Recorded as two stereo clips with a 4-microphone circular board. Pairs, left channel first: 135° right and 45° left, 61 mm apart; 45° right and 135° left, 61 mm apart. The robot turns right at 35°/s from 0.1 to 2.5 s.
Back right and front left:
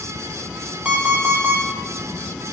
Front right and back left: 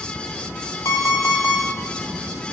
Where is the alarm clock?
20° right, 1.2 m; by 1.6 s 5° left, 1.2 m.